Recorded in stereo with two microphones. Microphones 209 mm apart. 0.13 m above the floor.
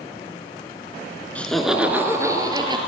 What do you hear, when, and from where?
1.4 s laughter: 5° left (ahead or behind), 1.4 m; by 2.8 s 20° right (ahead or behind), 2 m